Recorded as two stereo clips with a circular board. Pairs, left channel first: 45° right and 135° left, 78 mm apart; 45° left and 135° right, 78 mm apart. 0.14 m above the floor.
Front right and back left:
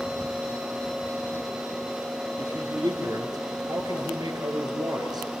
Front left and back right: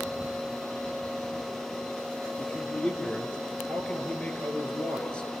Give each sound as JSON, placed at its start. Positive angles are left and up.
{"t": 2.4, "sound": "a man speaking", "azimuth_deg": 120, "distance_m": 3.0}